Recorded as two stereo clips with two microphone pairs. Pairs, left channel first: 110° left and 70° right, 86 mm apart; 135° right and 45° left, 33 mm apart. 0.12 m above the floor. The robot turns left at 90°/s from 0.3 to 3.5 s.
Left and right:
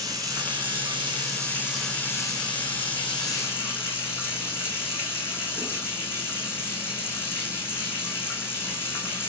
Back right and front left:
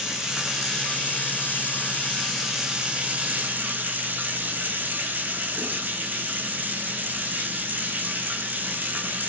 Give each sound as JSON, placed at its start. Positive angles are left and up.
{"t": 0.0, "sound": "running water", "azimuth_deg": -25, "distance_m": 3.5}